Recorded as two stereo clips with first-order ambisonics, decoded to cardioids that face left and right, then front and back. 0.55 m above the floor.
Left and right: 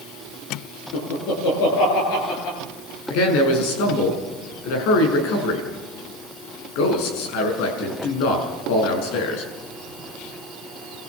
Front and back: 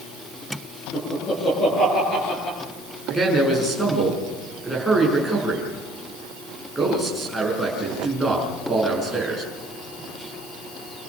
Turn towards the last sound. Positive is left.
turn(degrees=100)